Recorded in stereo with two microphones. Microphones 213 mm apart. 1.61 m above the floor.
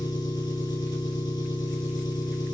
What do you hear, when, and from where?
0.0 s an engine running: 20° left (ahead or behind), 6 m